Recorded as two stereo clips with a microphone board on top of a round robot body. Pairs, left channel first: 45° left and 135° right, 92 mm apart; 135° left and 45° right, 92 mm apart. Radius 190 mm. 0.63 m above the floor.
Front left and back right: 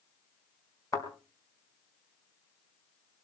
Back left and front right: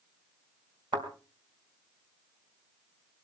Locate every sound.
0.9 s a thud: 10° right, 4 m